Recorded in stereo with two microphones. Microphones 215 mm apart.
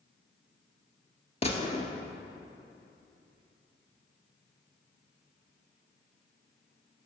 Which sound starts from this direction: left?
A gunshot, at 1.4 s.